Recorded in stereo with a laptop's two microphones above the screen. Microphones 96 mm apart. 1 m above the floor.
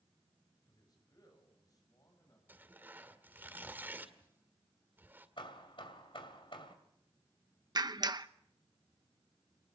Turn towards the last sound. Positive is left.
turn(degrees=-45)  # may be behind; listen again after turning